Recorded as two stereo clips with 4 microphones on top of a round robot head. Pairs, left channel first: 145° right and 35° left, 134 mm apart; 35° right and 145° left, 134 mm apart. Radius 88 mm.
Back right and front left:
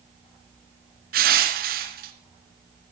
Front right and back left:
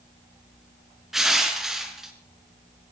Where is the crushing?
55° left, 3 m.